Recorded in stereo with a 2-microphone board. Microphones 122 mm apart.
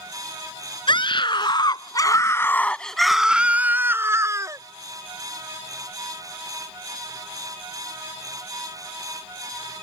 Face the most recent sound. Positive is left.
turn(degrees=-25)  # may be behind; listen again after turning